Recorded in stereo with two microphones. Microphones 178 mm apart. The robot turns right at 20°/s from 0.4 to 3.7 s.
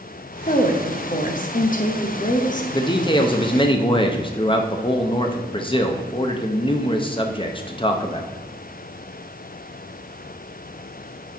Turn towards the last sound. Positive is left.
turn(degrees=30)  # may be behind; listen again after turning